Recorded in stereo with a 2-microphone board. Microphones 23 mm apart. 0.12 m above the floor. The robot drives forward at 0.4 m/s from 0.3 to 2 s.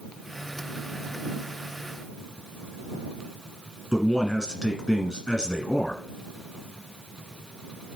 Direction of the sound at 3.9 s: 25° left (ahead or behind).